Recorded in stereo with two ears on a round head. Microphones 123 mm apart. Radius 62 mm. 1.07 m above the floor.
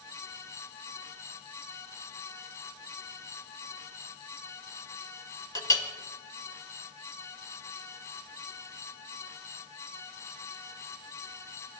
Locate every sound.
5.5 s a clink: 25° left (ahead or behind), 2 m